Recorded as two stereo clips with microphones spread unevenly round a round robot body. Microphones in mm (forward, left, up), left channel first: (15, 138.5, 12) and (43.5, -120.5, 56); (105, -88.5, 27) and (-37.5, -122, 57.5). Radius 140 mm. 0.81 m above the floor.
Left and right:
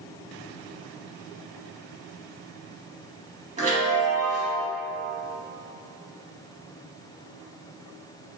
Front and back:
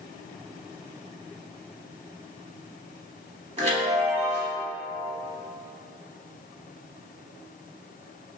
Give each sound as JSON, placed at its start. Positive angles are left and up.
{"t": 3.6, "sound": "a chime", "azimuth_deg": -140, "distance_m": 1.1}